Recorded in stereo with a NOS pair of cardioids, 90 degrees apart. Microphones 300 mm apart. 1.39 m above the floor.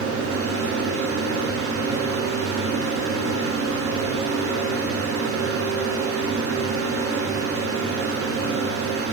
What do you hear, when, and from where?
0.0 s a fan: 50° right, 0.9 m